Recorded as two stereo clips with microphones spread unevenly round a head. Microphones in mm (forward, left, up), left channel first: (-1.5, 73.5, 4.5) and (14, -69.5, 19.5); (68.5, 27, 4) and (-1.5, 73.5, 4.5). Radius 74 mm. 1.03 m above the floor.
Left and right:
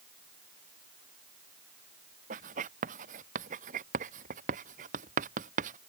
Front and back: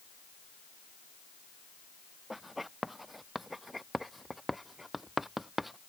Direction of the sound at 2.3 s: 125° right.